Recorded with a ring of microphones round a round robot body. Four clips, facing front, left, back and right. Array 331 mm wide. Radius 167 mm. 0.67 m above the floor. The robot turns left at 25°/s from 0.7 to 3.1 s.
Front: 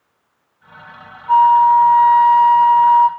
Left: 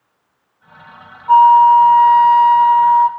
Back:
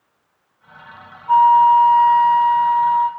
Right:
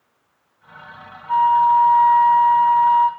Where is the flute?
85° left, 1.1 m; by 3.1 s 40° left, 1.1 m.